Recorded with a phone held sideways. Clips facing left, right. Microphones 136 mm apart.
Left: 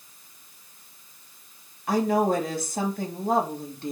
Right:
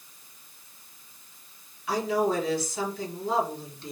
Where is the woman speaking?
50° left (ahead or behind), 2.5 m.